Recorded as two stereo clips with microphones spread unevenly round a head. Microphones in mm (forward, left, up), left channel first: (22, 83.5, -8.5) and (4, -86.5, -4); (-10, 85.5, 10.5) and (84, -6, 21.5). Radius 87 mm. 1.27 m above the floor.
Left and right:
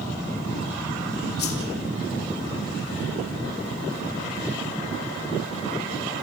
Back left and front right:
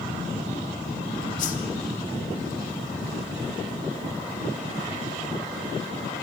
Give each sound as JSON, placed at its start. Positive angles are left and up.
{"t": 1.4, "sound": "a whoosh", "azimuth_deg": 120, "distance_m": 3.5}